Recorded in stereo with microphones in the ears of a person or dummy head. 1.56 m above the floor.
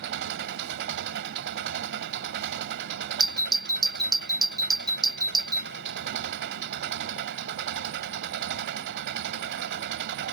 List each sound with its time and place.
0.0 s an engine running: 65° right (ahead or behind)
3.2 s a doorbell: 20° right (ahead or behind)